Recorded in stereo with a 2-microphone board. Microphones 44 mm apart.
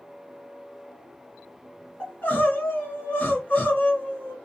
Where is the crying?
35° left (ahead or behind), 2.5 m.